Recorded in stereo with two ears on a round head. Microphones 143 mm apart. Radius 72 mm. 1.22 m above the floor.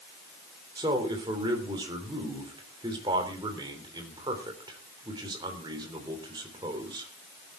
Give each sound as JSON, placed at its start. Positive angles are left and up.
{"t": 0.8, "sound": "a man speaking", "side_deg": -25, "distance_m": 3.5}